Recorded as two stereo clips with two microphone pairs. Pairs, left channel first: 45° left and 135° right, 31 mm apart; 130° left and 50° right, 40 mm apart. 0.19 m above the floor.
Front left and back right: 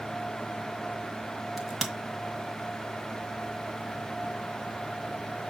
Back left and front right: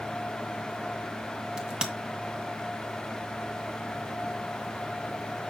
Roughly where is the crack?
Ahead right.